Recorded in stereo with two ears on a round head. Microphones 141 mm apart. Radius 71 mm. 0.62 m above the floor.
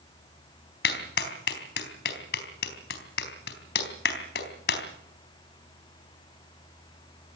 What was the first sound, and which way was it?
A clap, 70° left (ahead or behind).